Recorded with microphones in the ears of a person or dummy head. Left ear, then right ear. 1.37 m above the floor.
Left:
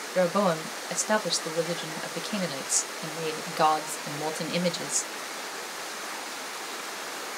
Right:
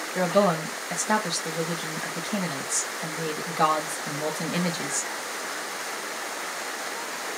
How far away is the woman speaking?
About 0.9 m.